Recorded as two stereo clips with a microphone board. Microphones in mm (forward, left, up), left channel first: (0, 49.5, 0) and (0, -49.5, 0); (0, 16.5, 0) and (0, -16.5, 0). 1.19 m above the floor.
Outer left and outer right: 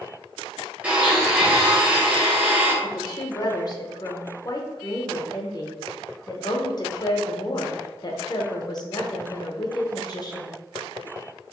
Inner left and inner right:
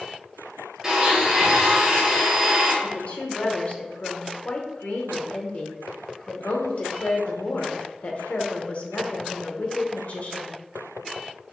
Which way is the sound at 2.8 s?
40° left (ahead or behind).